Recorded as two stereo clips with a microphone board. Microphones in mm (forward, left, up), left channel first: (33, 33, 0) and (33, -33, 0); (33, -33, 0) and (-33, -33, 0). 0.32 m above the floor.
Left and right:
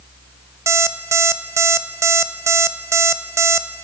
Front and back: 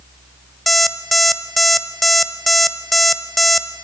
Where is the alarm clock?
90° right, 0.7 m.